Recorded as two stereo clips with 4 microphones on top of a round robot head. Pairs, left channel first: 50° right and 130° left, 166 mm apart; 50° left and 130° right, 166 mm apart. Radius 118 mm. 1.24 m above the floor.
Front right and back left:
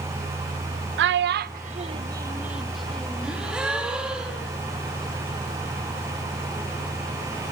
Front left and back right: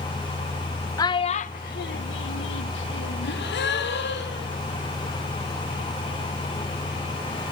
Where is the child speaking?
120° left, 0.7 m; by 3.3 s 30° left, 1.3 m.